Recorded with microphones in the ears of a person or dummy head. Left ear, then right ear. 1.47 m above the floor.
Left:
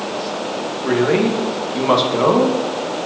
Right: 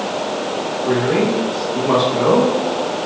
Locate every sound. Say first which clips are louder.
0.8 s a man speaking: left 1 dB; 75° left (ahead or behind), 1.6 m